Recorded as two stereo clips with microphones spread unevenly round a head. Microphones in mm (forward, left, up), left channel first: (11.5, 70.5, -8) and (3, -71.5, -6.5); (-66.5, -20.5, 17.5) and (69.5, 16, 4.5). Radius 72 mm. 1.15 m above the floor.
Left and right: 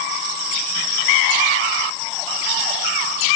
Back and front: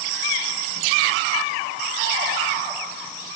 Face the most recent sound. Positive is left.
No sound to turn to.